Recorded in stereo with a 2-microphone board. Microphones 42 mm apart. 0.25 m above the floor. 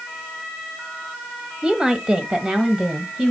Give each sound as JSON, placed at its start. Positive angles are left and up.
{"t": 1.6, "sound": "a woman speaking", "side_deg": -20, "distance_m": 1.0}